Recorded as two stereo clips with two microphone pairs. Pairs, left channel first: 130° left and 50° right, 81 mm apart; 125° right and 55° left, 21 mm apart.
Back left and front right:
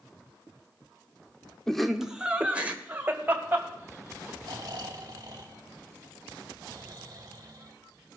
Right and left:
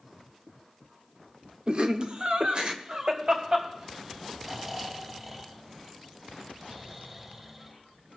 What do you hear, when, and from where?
1.7 s laughter: 55° left, 1.0 m; by 4.3 s 10° left, 3.5 m
4.4 s snoring: 15° right, 1.8 m